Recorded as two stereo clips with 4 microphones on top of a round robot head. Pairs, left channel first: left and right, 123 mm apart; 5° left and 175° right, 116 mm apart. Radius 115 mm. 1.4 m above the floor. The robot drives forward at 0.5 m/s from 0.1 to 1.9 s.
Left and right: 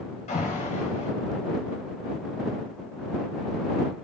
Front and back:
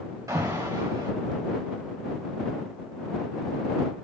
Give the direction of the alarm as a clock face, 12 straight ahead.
8 o'clock.